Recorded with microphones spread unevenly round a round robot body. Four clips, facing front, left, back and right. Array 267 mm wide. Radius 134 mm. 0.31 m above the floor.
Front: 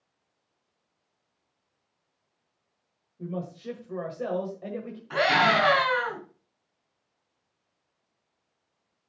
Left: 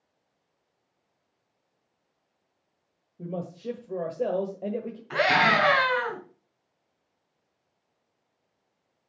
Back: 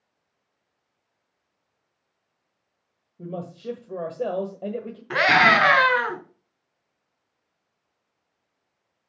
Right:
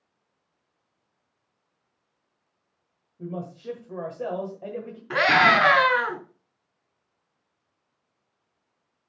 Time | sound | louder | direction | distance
3.2 | a man speaking | even, back 1 dB | 140° left | 1.6 m
5.1 | a scream | right 3 dB, back 4 dB | 150° right | 4 m